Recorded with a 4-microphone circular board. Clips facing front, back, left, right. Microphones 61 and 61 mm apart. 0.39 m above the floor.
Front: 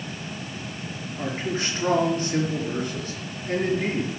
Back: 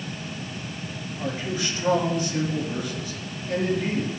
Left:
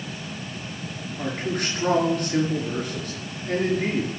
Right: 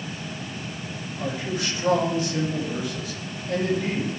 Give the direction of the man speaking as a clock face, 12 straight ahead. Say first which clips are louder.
Front 1 dB, left 1 dB; 10 o'clock.